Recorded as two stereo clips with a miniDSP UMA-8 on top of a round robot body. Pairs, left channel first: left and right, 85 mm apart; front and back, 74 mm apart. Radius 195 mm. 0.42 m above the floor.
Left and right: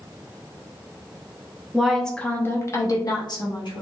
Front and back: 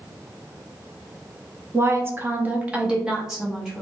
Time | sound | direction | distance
1.7 | a woman speaking | 170° right | 0.8 m